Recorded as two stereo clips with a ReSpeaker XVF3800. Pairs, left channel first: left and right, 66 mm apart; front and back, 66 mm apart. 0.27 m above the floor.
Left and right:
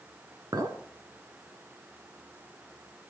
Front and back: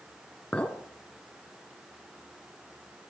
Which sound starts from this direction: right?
A clink, at 0.5 s.